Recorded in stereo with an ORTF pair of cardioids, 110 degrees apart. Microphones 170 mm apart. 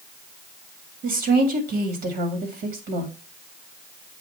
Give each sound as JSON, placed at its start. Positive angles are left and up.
{"t": 1.0, "sound": "a woman speaking", "azimuth_deg": -70, "distance_m": 1.9}